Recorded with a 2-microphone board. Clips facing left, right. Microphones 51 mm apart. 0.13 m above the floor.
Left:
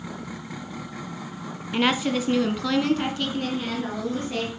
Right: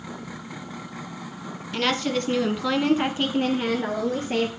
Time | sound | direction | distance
1.7 | a woman speaking | 15° left (ahead or behind) | 1.1 m